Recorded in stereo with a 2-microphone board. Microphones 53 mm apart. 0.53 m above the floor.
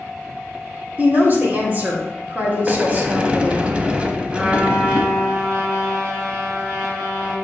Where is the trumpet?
25° right (ahead or behind), 3.5 m.